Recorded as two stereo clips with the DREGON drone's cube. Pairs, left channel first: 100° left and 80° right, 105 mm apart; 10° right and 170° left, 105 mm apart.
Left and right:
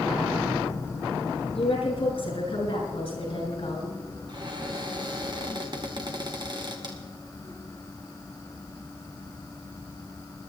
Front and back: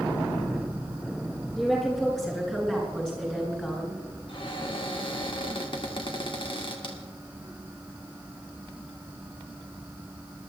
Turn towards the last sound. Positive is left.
turn(degrees=-40)